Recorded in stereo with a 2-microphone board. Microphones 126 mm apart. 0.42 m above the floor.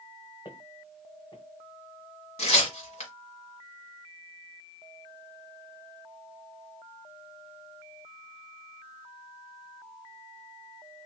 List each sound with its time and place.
0.5 s footsteps: 40° left (ahead or behind), 1.5 m
2.4 s tearing paper: 60° left (ahead or behind), 1.4 m